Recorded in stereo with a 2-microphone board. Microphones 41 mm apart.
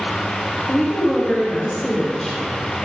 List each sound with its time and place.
0.7 s a woman speaking: 10° left (ahead or behind), 0.9 m